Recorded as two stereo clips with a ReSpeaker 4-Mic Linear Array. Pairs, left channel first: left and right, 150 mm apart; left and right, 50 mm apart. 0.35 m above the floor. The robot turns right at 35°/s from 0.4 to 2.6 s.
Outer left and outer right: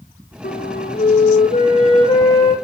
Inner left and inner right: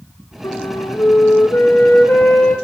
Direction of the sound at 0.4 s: 90° left.